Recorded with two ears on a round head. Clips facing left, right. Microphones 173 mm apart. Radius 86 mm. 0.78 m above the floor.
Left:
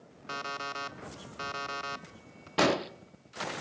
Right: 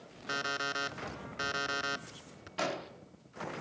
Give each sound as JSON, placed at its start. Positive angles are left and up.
{"t": 0.3, "sound": "an alarm clock", "side_deg": -15, "distance_m": 0.8}
{"t": 2.6, "sound": "an explosion", "side_deg": 70, "distance_m": 0.8}